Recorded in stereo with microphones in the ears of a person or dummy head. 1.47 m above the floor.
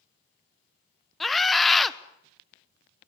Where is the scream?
Centre (ahead or behind), 1.2 m.